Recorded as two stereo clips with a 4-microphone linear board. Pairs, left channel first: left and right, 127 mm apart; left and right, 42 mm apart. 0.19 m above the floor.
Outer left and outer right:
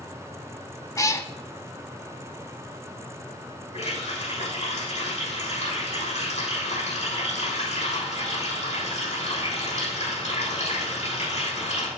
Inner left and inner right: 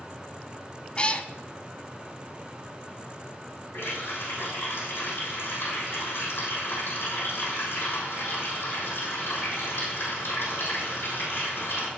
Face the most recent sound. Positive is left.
turn(degrees=70)  # may be behind; listen again after turning